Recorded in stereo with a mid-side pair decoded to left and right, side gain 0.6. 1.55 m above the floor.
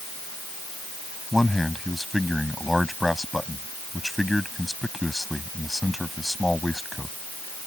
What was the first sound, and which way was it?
A man speaking, 5° left.